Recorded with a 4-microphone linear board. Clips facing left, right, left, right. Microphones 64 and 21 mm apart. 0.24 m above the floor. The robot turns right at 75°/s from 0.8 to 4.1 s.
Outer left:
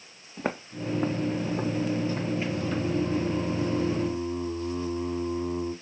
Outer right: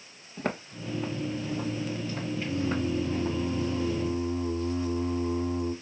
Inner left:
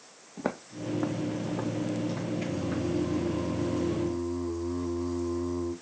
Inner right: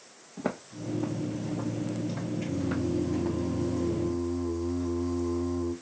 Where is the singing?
10° left (ahead or behind), 1.3 m; by 5.7 s 20° right (ahead or behind), 1.3 m.